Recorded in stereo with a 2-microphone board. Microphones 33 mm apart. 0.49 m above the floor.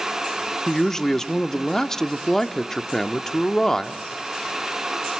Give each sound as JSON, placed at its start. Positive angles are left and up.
{"t": 0.7, "sound": "a man speaking", "side_deg": 15, "distance_m": 0.7}